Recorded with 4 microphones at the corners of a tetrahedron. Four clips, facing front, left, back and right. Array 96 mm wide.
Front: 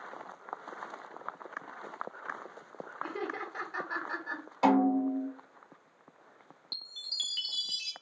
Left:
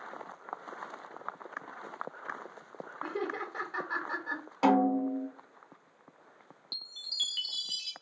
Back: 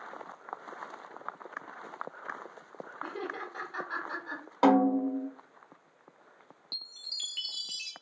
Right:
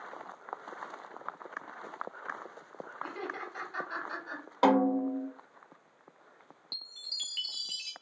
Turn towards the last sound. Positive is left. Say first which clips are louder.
# left 5 dB, front 4 dB
turn(degrees=45)